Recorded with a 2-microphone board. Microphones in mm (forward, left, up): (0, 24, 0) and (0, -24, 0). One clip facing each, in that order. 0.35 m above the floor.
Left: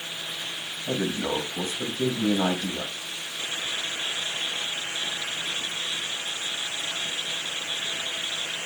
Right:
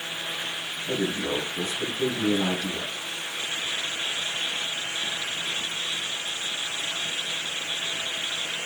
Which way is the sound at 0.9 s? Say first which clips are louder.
Even; 40° left (ahead or behind).